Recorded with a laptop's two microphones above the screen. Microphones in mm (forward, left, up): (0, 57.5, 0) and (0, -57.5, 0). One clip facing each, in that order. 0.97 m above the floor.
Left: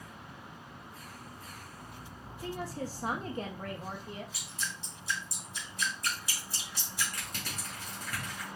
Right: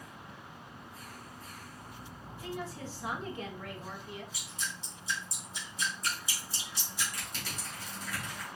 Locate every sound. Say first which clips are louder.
2.4 s a woman speaking: left 3 dB; 40° left (ahead or behind), 1.0 m
4.3 s dripping: left 1 dB; 70° left (ahead or behind), 3.5 m
7.1 s crushing: left 1 dB; 60° left (ahead or behind), 2.5 m